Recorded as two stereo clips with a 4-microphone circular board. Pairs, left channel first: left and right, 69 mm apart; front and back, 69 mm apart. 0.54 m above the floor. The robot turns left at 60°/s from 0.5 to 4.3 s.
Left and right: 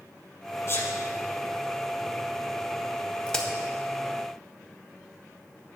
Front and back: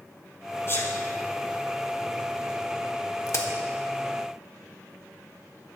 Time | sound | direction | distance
0.7 | a sneeze | 50° left | 2 m
3.3 | a crack | 20° left | 1.1 m